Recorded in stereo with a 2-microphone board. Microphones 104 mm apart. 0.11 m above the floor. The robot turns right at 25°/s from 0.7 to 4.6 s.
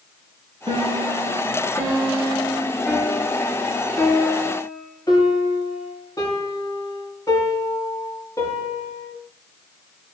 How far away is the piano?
About 9 m.